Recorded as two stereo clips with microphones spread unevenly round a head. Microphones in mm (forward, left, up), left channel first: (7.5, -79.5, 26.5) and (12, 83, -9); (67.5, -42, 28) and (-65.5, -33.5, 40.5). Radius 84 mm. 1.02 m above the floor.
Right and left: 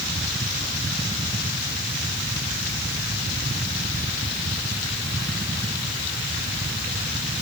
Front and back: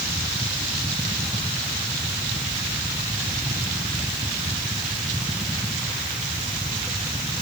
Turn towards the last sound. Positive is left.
No sound to turn to.